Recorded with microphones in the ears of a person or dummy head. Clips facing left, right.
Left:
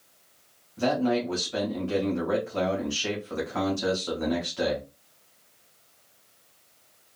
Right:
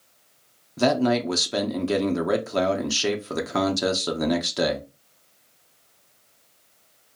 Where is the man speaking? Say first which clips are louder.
Right 4 dB; 75° right (ahead or behind), 0.6 m.